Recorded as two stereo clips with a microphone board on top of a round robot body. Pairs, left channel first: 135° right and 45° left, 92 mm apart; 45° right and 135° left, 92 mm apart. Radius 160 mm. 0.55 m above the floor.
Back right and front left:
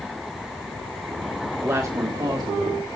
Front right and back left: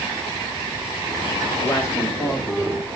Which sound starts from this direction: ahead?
A woman speaking, at 1.6 s.